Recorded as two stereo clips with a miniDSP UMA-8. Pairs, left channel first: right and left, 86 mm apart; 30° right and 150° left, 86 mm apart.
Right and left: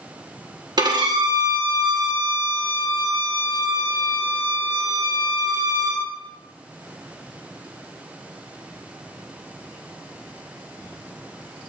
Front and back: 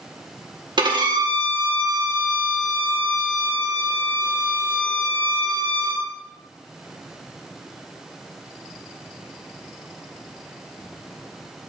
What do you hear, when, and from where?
0.8 s a violin: 125° left, 1.9 m